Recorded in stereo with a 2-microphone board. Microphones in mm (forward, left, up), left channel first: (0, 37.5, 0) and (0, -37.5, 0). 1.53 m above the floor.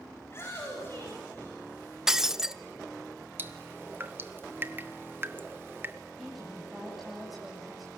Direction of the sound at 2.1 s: 10° right (ahead or behind).